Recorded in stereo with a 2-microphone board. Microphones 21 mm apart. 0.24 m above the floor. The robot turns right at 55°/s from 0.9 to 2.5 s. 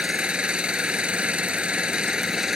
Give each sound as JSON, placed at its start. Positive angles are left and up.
{"t": 0.0, "sound": "an engine running", "azimuth_deg": -115}